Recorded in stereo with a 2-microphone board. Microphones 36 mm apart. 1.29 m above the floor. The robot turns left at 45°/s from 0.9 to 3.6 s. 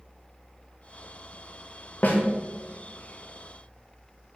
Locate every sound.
2.0 s a snare drum: 45° left (ahead or behind), 0.5 m